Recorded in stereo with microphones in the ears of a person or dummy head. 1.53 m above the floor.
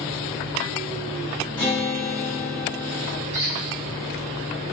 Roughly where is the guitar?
Centre.